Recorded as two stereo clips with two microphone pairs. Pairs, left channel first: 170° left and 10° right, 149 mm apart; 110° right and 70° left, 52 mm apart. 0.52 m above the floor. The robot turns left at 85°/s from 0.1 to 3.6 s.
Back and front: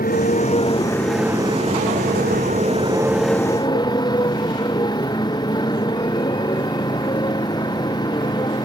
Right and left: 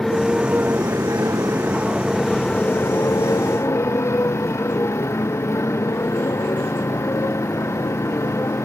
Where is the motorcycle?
170° left; by 8.7 s 130° right.